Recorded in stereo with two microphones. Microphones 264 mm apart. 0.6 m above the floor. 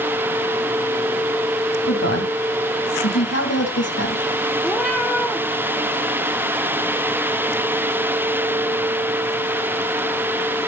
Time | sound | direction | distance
1.9 | a woman speaking | 70° left (ahead or behind) | 3.5 m
4.6 | a cat meowing | centre (ahead or behind) | 2 m